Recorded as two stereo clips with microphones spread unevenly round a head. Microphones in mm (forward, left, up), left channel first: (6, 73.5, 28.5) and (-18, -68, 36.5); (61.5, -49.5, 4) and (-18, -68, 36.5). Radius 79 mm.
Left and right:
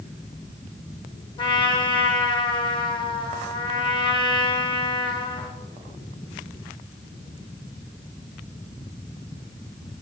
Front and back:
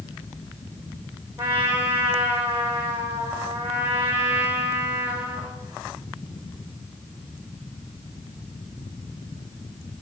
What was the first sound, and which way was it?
A trumpet, 140° left.